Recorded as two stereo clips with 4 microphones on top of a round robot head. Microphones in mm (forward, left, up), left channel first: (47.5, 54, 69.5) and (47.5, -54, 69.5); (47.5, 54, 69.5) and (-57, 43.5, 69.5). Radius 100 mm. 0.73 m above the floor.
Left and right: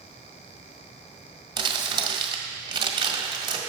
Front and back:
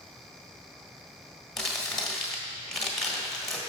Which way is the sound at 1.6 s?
80° right.